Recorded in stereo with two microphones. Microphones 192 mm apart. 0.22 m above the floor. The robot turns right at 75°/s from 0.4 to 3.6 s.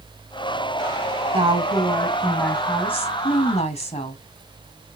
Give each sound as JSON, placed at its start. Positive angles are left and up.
{"t": 1.3, "sound": "a woman speaking", "azimuth_deg": -60, "distance_m": 1.8}